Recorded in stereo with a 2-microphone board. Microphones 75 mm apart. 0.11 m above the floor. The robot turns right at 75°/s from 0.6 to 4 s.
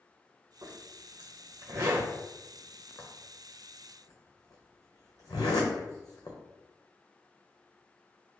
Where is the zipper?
50° right (ahead or behind), 1.1 m; by 6.4 s 55° left (ahead or behind), 1.1 m.